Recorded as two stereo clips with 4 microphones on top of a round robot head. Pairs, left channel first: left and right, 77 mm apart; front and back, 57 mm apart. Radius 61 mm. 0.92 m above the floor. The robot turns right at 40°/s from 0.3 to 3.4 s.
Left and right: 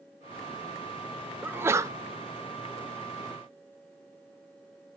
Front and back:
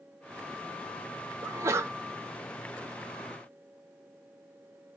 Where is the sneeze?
155° right, 0.7 m; by 1.9 s 135° right, 0.7 m.